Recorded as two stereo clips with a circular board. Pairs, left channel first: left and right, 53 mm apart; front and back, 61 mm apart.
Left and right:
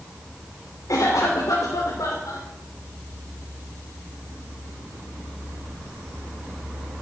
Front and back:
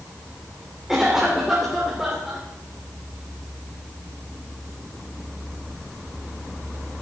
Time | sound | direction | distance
0.9 | a cough | 95° left | 3 m